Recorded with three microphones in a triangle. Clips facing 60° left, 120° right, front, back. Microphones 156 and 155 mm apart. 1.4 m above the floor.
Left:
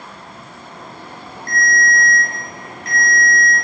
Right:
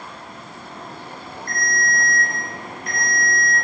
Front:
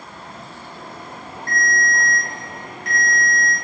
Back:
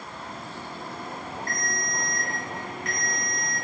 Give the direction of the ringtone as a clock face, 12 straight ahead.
10 o'clock.